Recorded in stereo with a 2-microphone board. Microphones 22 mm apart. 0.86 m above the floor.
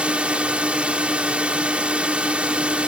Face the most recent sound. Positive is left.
turn(degrees=-60)  # may be behind; listen again after turning